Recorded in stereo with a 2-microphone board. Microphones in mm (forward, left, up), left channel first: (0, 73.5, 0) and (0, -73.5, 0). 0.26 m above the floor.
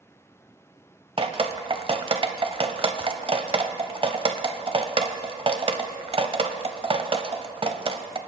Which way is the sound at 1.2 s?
40° right (ahead or behind).